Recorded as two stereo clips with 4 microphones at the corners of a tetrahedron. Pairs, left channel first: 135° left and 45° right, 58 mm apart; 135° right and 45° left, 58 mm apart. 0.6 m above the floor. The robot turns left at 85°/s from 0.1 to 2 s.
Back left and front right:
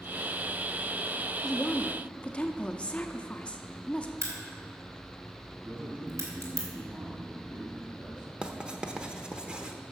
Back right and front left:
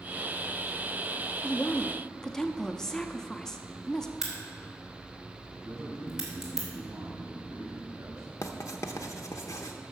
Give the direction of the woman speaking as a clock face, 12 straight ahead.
5 o'clock.